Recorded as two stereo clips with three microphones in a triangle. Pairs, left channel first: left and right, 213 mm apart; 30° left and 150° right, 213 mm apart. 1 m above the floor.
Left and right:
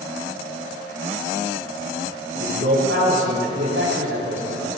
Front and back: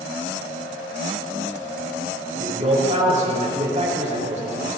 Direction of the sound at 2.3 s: 95° right.